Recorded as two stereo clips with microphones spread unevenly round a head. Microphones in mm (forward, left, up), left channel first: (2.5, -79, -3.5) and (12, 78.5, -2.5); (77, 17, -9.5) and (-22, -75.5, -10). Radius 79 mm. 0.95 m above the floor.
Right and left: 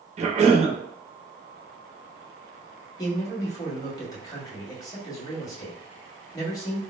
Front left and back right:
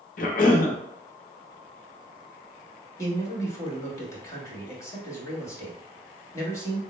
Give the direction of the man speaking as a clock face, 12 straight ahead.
1 o'clock.